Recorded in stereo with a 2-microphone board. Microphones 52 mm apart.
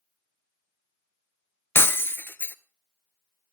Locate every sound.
1.8 s breaking glass: 50° left (ahead or behind), 0.6 m